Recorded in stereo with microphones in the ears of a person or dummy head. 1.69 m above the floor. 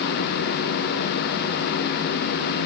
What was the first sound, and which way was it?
Only background noise.